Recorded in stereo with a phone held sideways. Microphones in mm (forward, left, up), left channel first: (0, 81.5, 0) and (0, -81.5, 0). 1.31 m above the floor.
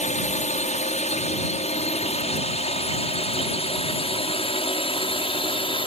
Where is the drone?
45° left (ahead or behind); by 5.9 s 30° left (ahead or behind).